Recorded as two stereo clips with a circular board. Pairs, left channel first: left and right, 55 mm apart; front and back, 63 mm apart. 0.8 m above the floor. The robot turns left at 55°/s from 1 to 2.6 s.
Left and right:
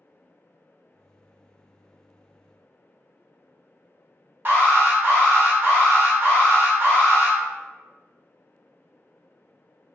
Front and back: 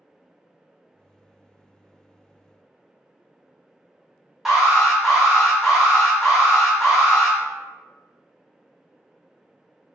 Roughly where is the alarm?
Right.